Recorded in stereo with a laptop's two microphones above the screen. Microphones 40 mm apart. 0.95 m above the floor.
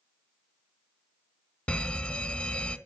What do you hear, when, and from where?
1.7 s a fire alarm: 30° left (ahead or behind), 1.7 m